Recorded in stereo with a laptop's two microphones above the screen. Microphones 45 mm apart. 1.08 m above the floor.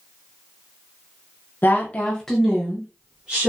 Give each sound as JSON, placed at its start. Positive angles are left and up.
{"t": 1.6, "sound": "a woman speaking", "side_deg": 50, "distance_m": 0.6}